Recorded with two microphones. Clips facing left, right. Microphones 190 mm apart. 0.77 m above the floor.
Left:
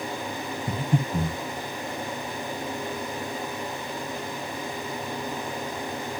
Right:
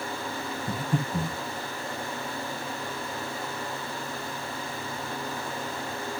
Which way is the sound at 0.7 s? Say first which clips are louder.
Left 3 dB; 25° left (ahead or behind).